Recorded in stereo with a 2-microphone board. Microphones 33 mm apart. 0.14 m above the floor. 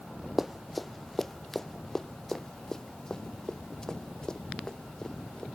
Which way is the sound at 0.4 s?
10° right (ahead or behind).